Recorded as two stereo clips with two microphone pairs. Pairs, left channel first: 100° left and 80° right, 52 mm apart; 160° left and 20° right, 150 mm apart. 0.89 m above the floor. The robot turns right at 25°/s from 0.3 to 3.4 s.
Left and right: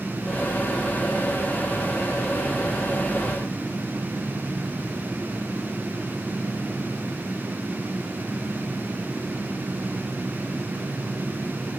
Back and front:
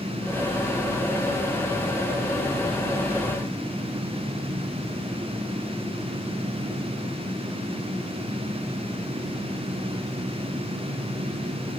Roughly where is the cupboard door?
I don't hear a cupboard door.